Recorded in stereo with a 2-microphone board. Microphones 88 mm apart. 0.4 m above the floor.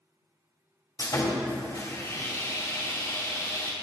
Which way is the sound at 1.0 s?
45° left (ahead or behind).